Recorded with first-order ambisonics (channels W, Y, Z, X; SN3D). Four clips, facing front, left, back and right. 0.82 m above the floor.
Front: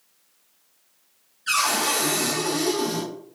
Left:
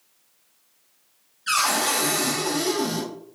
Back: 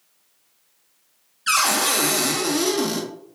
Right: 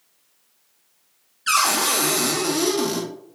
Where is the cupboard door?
140° right, 0.7 m.